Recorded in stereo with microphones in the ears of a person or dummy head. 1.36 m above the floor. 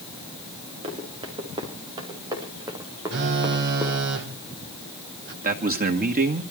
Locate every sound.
0.8 s running footsteps: 30° right (ahead or behind), 6.5 m; by 4.0 s 10° right (ahead or behind), 4 m
3.1 s a phone buzzing: 55° right (ahead or behind), 2 m
5.4 s a man speaking: 40° right (ahead or behind), 2 m